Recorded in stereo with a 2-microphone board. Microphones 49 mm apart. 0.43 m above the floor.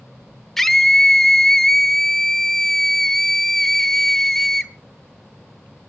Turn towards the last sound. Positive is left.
turn(degrees=10)  # may be behind; listen again after turning